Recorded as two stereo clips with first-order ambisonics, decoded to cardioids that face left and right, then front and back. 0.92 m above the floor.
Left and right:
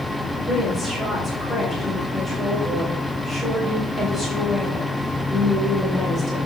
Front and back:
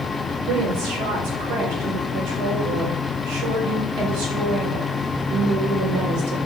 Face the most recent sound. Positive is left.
turn(degrees=165)